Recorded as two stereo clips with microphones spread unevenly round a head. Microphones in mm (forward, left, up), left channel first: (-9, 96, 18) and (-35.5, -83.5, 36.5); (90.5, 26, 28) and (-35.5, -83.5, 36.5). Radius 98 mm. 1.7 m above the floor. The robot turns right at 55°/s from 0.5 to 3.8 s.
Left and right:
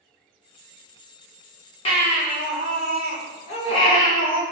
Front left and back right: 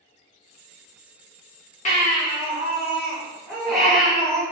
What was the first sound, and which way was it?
A baby crying, 30° left.